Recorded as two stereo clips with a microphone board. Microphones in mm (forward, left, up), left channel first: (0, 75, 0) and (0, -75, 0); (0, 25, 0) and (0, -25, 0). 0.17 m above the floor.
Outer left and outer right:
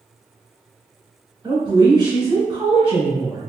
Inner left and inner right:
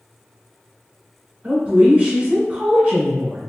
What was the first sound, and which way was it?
A woman speaking, 30° right (ahead or behind).